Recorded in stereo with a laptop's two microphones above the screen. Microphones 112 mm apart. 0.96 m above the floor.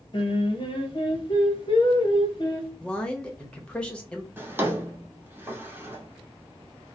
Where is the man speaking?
10° left (ahead or behind), 1.0 m.